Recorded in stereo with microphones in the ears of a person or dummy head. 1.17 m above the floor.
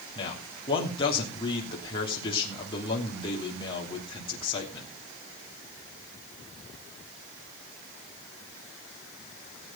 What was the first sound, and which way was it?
A man speaking, 25° left (ahead or behind).